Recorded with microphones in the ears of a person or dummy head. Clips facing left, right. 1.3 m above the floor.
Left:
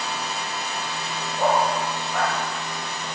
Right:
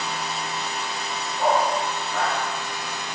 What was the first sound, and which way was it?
A dog barking, 50° left (ahead or behind).